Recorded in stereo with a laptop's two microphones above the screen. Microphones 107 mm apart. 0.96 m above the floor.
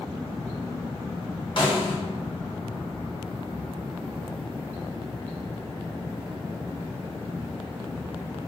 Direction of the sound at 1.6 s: 50° left (ahead or behind).